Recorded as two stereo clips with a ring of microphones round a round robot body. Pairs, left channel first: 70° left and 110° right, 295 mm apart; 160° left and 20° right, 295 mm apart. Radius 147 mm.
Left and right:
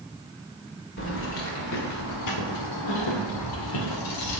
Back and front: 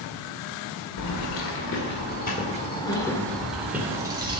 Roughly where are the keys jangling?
Behind left.